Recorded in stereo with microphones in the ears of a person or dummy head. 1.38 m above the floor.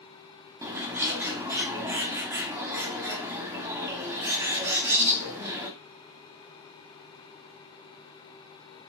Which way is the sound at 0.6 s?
10° right (ahead or behind).